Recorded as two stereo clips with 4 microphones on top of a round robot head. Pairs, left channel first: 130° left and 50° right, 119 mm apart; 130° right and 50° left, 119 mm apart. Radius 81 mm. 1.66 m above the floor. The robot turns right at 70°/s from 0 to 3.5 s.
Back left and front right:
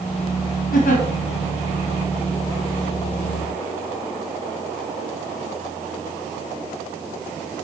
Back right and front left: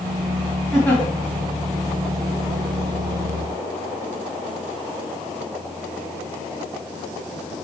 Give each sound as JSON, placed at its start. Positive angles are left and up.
{"t": 0.7, "sound": "a giggle", "azimuth_deg": 140, "distance_m": 1.7}